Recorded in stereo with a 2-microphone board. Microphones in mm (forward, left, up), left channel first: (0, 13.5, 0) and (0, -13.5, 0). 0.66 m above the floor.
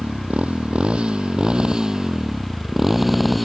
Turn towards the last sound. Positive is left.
turn(degrees=5)  # may be behind; listen again after turning